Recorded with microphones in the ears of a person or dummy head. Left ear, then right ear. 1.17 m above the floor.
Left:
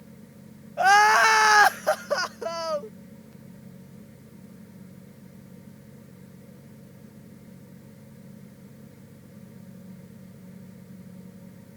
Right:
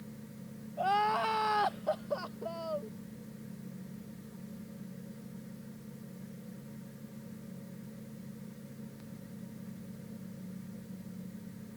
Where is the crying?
50° left (ahead or behind).